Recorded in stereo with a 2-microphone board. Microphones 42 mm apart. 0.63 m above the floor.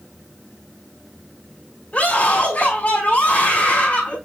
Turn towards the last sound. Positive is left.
turn(degrees=35)  # may be behind; listen again after turning